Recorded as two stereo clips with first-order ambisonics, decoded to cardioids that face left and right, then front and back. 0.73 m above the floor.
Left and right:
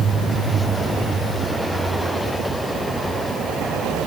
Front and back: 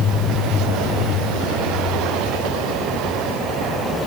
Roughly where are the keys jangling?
No keys jangling in this recording.